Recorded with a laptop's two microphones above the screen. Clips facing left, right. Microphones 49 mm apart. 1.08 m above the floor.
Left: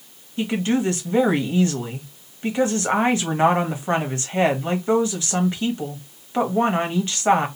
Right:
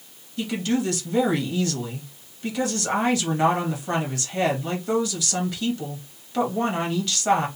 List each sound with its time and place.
0.4 s a woman speaking: 30° left (ahead or behind), 1.0 m